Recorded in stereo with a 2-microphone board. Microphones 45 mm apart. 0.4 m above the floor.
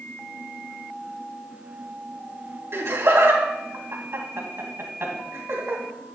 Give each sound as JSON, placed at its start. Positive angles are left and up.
{"t": 2.7, "sound": "laughter", "side_deg": -60, "distance_m": 3.0}